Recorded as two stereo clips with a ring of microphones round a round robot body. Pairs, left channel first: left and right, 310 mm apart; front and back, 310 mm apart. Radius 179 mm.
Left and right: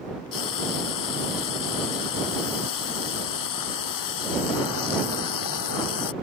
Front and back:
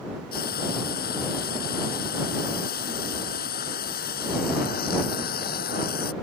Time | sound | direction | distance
0.3 | frying | 65° left | ?